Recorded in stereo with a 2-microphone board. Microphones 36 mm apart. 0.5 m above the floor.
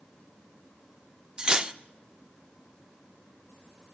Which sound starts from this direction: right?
Cutlery clinking, at 1.4 s.